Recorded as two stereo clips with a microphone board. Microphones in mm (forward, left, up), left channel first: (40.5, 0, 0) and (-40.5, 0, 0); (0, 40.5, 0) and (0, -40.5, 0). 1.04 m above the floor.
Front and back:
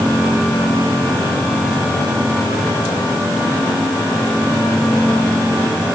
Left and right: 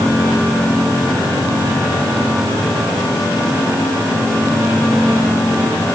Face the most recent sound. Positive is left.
No sound to turn to.